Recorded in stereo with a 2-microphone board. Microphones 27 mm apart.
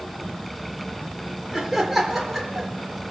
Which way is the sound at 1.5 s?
10° right (ahead or behind).